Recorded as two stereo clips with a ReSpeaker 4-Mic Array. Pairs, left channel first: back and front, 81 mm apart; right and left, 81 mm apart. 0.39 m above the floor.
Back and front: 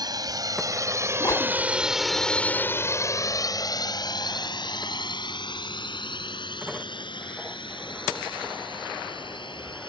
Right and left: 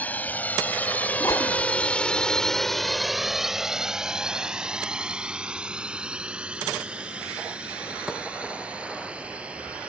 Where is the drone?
25° right; by 9.9 s 165° left.